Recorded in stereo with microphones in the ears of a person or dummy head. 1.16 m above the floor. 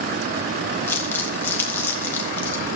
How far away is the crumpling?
About 2 m.